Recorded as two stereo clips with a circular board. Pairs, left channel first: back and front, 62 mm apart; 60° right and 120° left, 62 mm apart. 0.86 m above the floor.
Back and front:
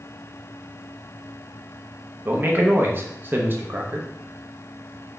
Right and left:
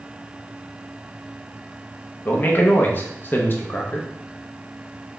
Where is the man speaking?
30° right, 0.6 m.